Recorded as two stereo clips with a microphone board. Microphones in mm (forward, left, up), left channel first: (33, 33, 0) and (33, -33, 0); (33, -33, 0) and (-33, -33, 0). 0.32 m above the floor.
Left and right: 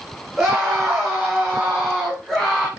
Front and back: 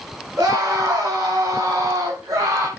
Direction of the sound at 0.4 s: 165° right.